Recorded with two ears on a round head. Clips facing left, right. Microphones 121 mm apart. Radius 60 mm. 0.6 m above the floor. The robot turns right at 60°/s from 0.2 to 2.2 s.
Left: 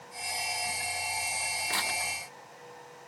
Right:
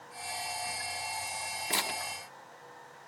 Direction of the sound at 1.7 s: 25° right (ahead or behind).